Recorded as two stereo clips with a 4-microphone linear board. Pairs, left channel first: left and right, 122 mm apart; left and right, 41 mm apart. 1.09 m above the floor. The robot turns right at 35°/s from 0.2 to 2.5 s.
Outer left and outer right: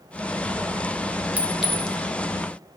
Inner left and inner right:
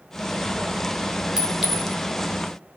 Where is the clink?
10° right (ahead or behind), 0.6 m; by 2.0 s 10° left (ahead or behind), 0.6 m.